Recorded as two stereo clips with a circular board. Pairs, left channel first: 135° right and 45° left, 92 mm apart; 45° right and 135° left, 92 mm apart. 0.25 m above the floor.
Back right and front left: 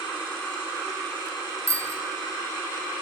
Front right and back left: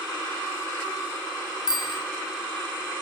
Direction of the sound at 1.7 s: 10° right.